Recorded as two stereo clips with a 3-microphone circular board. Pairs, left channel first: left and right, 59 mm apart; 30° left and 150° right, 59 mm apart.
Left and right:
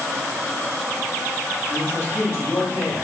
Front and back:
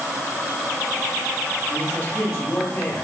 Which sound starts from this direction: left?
A man speaking, at 1.7 s.